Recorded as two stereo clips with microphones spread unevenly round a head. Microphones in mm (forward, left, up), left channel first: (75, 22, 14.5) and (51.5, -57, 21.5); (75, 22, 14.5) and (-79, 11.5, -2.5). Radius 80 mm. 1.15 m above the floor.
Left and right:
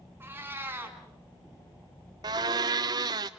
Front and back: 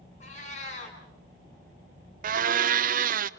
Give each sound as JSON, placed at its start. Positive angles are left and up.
{"t": 0.2, "sound": "a cat meowing", "azimuth_deg": -45, "distance_m": 4.0}
{"t": 2.2, "sound": "a blender", "azimuth_deg": -155, "distance_m": 0.6}